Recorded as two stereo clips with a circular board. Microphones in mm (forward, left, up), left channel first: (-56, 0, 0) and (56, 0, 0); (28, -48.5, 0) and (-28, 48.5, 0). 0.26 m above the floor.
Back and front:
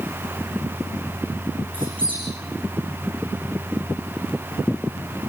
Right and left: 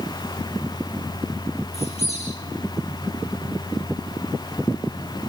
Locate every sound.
1.7 s a squeak: 40° right, 7.5 m